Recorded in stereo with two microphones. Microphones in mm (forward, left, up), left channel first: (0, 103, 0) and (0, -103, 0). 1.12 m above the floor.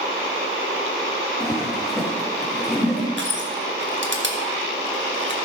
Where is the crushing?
65° right (ahead or behind), 1.5 m.